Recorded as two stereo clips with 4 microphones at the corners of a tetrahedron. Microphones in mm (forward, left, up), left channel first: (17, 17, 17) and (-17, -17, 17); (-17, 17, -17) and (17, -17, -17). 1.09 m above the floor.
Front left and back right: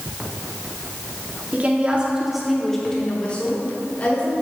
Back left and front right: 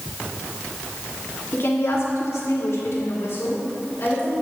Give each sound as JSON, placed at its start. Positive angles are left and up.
{"t": 1.5, "sound": "a woman speaking", "azimuth_deg": 175, "distance_m": 2.0}